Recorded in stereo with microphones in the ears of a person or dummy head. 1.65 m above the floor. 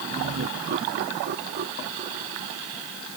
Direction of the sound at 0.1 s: 60° right (ahead or behind).